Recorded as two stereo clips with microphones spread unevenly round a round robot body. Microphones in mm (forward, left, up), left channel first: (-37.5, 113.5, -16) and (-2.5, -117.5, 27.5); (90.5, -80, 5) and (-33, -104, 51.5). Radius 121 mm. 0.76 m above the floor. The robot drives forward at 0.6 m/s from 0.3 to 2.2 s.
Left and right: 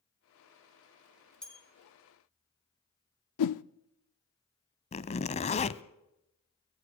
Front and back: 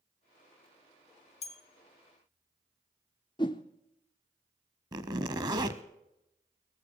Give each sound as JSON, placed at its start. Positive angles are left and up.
{"t": 1.4, "sound": "a bell", "azimuth_deg": 15, "distance_m": 2.5}
{"t": 3.4, "sound": "a whoosh", "azimuth_deg": 80, "distance_m": 0.6}
{"t": 4.9, "sound": "a zipper", "azimuth_deg": 165, "distance_m": 0.8}